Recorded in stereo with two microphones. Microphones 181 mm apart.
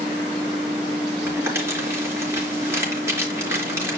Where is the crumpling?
15° right (ahead or behind), 4 m.